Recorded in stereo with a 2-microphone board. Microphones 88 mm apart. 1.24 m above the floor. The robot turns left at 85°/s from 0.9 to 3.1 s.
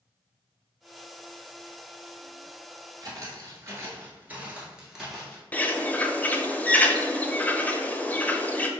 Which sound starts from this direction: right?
Footsteps, at 3.0 s.